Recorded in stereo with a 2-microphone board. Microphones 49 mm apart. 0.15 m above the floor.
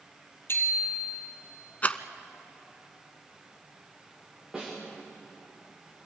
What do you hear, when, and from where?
0.5 s a bicycle bell: 50° left (ahead or behind), 3 m
1.8 s a rattle: 30° left (ahead or behind), 0.8 m
4.5 s a snare drum: 10° right (ahead or behind), 7.5 m